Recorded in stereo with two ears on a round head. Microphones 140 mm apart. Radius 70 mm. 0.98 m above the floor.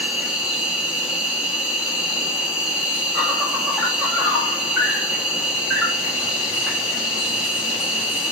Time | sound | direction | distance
0.0 | an insect | 5° right (ahead or behind) | 1.1 m